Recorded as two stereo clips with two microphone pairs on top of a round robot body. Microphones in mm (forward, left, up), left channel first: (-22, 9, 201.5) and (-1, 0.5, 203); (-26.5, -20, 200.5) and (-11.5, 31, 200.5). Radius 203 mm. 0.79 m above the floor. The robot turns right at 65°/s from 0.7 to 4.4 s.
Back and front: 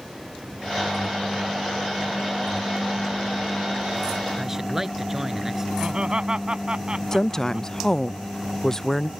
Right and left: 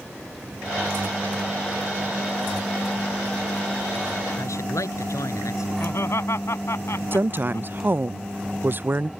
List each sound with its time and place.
4.4 s a man speaking: 95° right
5.8 s laughter: 75° right
7.1 s a woman speaking: 105° left